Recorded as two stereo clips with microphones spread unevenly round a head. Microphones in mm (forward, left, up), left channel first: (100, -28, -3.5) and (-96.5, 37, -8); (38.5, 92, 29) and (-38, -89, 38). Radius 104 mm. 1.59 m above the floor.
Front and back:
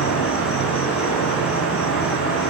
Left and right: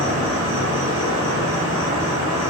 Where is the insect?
40° right, 3.5 m.